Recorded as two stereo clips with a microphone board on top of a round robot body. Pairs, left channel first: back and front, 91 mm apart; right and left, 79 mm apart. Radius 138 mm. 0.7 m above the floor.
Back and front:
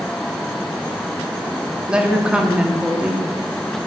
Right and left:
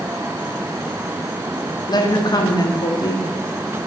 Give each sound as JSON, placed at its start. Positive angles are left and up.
{"t": 1.9, "sound": "a woman speaking", "azimuth_deg": -80, "distance_m": 1.1}